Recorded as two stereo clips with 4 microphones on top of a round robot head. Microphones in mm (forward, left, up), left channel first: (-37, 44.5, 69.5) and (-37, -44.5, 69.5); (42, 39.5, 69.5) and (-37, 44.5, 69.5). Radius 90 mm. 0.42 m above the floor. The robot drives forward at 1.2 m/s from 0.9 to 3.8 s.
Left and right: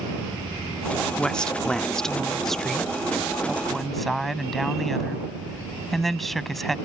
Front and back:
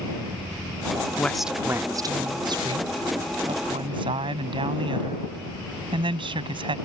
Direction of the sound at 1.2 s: 25° left.